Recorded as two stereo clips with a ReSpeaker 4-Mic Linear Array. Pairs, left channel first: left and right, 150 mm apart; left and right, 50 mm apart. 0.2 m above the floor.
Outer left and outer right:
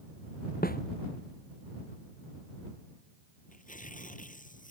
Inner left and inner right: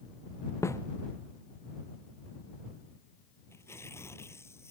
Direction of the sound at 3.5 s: 65° left (ahead or behind).